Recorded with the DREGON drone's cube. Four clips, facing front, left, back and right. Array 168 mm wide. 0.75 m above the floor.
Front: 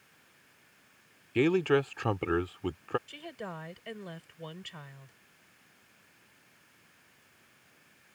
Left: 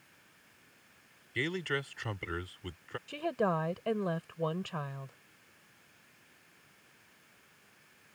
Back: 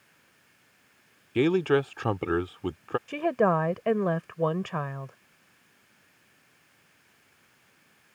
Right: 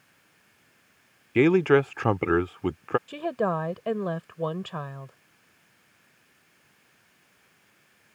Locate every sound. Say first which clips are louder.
1.4 s a man speaking: right 17 dB, back 3 dB; 100° right
3.1 s a woman speaking: right 5 dB, back 18 dB; 165° right